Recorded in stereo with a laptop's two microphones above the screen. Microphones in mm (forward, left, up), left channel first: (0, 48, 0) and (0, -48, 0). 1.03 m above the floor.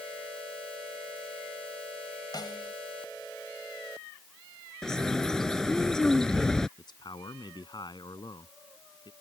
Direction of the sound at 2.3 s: 45° left (ahead or behind).